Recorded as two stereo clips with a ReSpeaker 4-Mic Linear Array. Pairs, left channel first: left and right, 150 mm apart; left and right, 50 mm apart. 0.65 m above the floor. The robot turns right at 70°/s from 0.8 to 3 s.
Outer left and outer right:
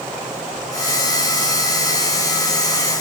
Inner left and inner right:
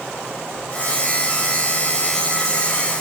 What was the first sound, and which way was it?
Only background noise.